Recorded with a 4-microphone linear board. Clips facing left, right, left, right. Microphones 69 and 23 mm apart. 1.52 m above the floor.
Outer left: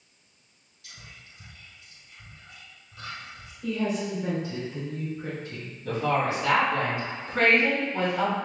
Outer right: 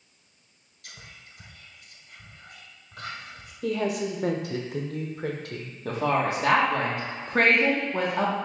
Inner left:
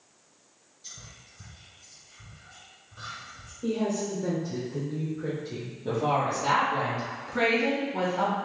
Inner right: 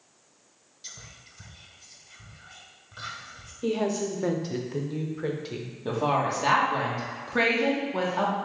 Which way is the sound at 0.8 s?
60° right (ahead or behind).